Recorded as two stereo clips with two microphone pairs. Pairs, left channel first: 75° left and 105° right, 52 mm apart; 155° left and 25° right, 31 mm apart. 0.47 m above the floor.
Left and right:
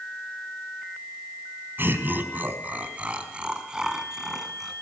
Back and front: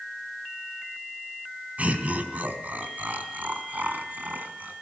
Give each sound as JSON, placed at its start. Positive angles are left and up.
{"t": 1.8, "sound": "laughter", "azimuth_deg": -60, "distance_m": 4.0}